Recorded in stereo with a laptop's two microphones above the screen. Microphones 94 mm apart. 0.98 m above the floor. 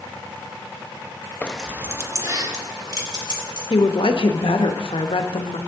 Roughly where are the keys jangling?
Centre.